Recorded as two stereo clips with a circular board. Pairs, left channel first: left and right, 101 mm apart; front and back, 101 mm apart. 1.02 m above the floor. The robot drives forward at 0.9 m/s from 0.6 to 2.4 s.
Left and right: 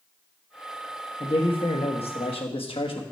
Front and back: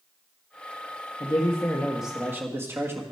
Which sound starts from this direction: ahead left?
A man speaking, at 1.2 s.